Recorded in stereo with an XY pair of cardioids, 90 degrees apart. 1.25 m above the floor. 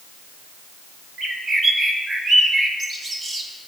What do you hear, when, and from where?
1.2 s a bird: 45° right, 1.1 m